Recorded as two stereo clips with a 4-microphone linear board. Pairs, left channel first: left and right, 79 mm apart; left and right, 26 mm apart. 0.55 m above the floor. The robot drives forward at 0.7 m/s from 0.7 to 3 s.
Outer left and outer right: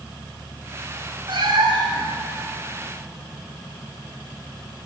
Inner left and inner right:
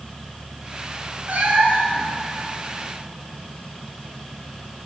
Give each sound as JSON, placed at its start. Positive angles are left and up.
{"t": 1.3, "sound": "a cat meowing", "side_deg": -80, "distance_m": 2.0}